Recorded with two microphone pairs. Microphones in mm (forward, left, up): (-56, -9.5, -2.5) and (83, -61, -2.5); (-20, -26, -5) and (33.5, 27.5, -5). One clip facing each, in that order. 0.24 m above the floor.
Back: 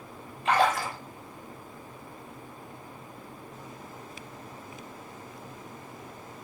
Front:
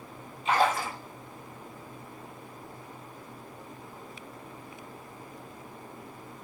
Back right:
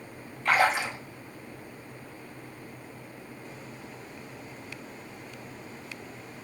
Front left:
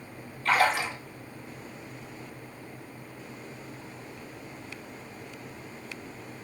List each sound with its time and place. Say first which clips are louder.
0.5 s a splash: back 1 dB, even; 155° left, 1.0 m